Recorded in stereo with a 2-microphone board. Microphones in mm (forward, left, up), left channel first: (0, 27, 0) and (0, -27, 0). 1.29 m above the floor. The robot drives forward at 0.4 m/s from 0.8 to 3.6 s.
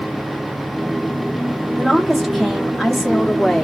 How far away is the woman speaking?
About 0.8 m.